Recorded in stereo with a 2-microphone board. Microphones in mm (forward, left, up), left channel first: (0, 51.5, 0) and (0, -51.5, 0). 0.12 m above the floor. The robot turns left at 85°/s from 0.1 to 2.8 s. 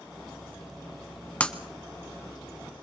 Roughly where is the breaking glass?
Centre.